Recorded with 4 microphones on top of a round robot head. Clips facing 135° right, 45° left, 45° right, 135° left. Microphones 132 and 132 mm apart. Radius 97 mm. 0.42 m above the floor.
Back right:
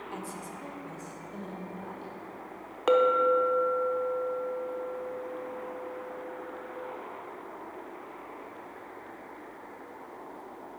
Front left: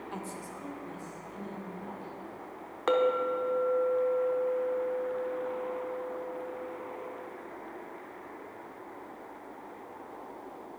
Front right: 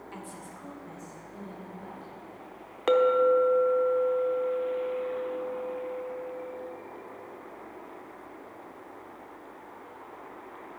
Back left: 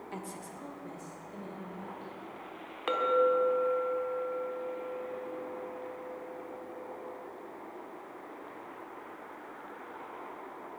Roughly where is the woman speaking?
Behind left.